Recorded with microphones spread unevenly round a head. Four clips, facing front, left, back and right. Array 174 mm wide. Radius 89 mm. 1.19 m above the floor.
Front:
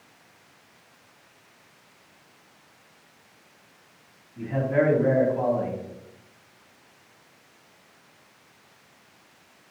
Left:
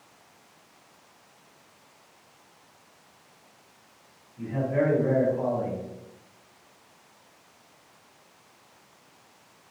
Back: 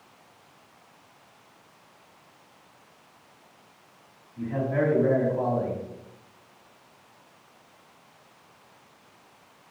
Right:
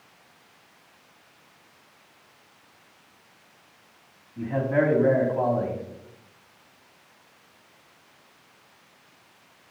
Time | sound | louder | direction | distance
4.4 | a man speaking | right 3 dB, front 3 dB | 75° right | 3.5 m